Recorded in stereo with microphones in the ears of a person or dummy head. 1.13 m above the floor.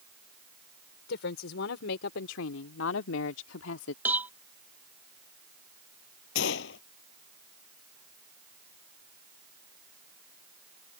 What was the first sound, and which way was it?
A woman speaking, 75° left (ahead or behind).